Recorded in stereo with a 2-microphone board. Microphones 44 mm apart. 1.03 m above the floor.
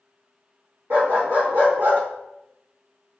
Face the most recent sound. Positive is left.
turn(degrees=-55)  # may be behind; listen again after turning